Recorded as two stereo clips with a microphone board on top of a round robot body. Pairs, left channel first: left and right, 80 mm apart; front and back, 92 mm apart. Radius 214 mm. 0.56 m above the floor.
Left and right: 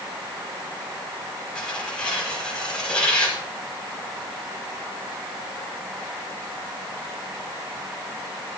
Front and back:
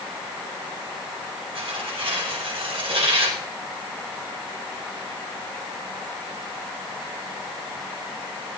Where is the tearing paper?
170° left, 7.5 m.